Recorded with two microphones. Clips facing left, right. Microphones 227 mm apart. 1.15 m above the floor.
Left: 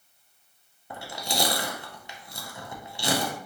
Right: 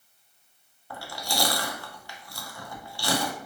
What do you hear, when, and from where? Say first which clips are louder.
0.9 s chewing: left 1 dB; 20° left (ahead or behind), 0.5 m